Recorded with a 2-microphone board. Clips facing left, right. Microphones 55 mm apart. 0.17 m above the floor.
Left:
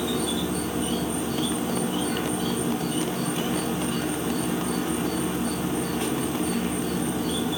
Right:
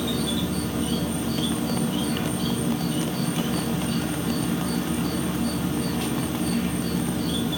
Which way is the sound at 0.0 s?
20° left (ahead or behind).